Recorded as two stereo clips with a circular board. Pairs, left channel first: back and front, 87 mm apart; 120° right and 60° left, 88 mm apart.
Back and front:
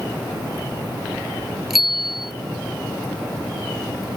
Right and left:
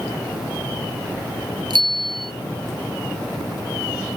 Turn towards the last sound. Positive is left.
turn(degrees=90)